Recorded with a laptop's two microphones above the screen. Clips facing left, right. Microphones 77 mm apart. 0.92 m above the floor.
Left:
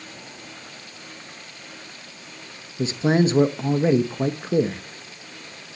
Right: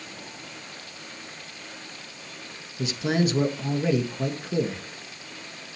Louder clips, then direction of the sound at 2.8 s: Left 5 dB; 30° left (ahead or behind).